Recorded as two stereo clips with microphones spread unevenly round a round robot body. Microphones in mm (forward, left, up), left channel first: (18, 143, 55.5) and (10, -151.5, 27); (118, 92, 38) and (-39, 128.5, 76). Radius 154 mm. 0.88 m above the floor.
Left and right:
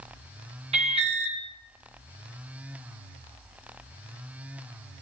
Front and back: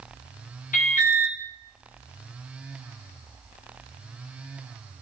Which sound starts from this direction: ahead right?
An alarm, at 0.7 s.